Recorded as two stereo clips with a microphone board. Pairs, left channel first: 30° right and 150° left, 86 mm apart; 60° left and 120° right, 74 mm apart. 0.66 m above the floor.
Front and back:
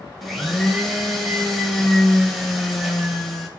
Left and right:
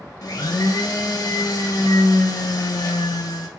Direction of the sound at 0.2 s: 60° left.